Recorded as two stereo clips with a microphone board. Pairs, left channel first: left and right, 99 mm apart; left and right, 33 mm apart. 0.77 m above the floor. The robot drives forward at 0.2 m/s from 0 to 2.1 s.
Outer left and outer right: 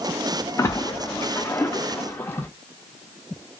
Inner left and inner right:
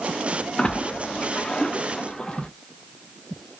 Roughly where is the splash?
Left.